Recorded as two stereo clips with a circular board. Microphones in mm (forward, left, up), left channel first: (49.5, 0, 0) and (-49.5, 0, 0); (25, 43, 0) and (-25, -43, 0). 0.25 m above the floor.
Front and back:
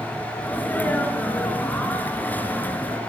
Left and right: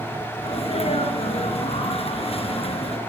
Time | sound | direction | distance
0.4 | a sneeze | 70° left | 4 m